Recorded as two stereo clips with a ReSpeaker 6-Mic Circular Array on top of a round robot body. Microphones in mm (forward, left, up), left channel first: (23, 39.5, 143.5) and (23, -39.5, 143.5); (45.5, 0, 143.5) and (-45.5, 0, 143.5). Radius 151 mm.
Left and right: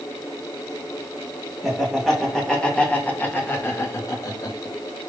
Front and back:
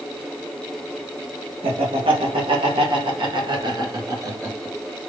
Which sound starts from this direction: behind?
Laughter, at 1.6 s.